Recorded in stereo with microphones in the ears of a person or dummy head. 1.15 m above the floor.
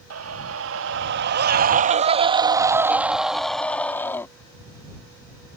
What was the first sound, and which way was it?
A scream, 80° right.